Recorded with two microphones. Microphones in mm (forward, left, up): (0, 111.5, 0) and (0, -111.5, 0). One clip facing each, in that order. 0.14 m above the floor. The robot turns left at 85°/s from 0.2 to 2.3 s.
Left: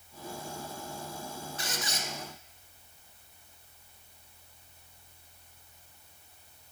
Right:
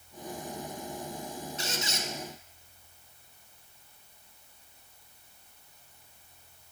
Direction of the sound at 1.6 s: 25° right (ahead or behind).